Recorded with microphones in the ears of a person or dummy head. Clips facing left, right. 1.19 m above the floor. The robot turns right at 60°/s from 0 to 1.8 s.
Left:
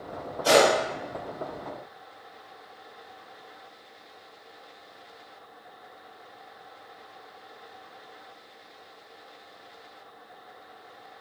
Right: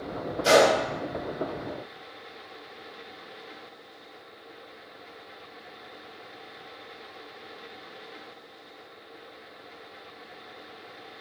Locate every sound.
0.4 s a gunshot: 30° right (ahead or behind), 1.3 m; by 0.8 s 20° right (ahead or behind), 1.3 m